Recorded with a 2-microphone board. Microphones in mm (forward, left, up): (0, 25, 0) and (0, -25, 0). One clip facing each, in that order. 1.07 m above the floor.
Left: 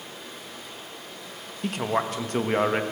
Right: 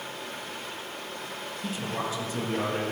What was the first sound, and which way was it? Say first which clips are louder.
Running water: right 4 dB; 75° right (ahead or behind).